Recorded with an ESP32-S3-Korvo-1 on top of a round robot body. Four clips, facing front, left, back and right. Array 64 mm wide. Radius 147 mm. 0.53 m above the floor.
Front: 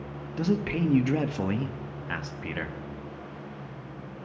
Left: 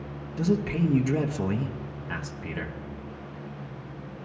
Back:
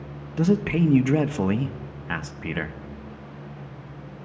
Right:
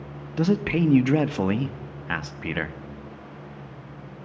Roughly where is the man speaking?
Right.